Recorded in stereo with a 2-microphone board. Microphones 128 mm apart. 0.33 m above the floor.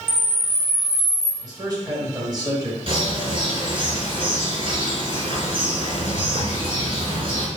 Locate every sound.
0.1 s a camera shutter: 15° left (ahead or behind), 1.3 m
1.4 s a man speaking: 30° right (ahead or behind), 1.9 m
2.9 s a bird: 45° right (ahead or behind), 2.5 m